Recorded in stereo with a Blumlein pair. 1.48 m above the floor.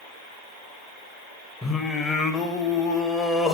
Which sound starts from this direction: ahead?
Singing, at 1.6 s.